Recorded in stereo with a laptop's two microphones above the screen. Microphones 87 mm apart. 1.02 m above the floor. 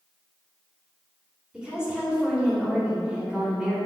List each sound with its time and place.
1.5 s a woman speaking: 10° right (ahead or behind), 2.5 m